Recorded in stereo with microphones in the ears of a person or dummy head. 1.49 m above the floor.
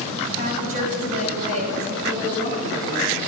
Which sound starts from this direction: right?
A woman speaking, at 0.3 s.